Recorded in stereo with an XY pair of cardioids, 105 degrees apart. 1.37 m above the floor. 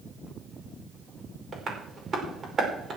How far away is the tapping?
About 5 m.